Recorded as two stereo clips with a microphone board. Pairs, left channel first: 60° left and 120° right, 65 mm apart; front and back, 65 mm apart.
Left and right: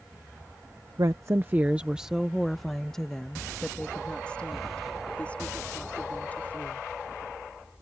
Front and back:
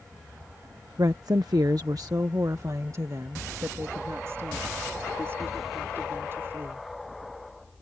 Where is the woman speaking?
150° right; by 6.9 s 125° left.